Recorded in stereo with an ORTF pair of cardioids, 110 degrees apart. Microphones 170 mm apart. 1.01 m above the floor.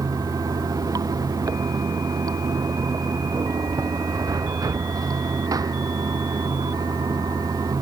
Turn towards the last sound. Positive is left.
turn(degrees=-20)